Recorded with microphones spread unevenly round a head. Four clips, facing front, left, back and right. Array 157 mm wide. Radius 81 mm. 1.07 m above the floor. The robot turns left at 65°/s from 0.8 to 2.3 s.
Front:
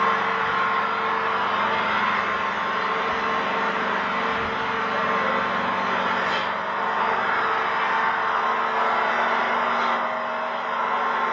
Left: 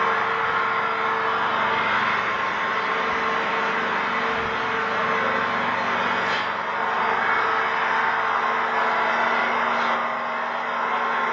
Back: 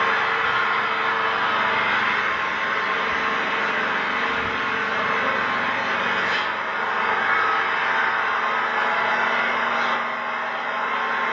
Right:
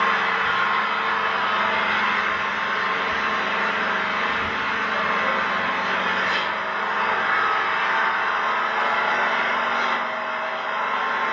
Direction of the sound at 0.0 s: 150° right.